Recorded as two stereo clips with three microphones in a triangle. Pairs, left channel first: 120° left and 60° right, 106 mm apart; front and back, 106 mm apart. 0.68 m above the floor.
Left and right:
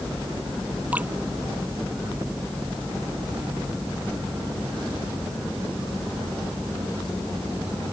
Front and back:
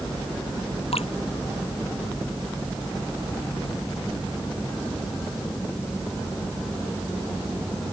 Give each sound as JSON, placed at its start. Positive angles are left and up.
{"t": 0.9, "sound": "dripping", "azimuth_deg": 15}